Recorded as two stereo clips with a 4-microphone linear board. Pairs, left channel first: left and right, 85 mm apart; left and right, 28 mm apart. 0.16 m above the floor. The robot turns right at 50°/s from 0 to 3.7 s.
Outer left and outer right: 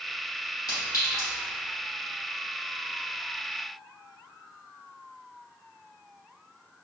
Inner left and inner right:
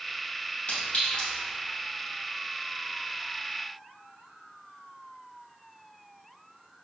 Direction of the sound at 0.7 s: 50° left (ahead or behind).